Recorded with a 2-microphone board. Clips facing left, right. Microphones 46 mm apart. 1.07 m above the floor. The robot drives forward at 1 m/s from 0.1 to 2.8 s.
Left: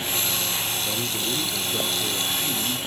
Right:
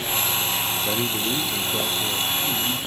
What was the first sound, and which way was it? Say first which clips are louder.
A man speaking: right 3 dB; 25° right (ahead or behind).